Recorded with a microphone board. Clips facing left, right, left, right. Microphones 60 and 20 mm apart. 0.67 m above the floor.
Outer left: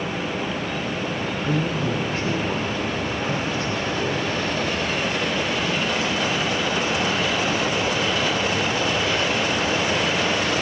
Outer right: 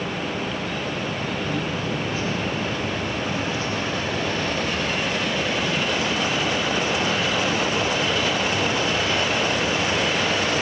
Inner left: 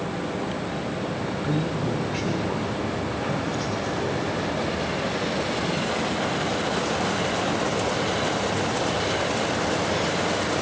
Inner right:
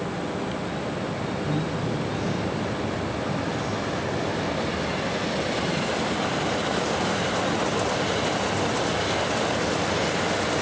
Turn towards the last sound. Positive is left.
turn(degrees=60)  # may be behind; listen again after turning